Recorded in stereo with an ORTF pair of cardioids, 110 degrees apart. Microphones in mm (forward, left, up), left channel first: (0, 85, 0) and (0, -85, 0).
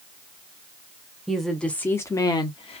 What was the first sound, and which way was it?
A woman speaking, straight ahead.